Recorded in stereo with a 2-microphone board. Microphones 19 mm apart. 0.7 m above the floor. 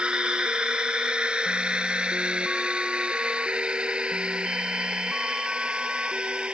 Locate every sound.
0.0 s a drone: 70° right (ahead or behind); by 6.5 s 80° right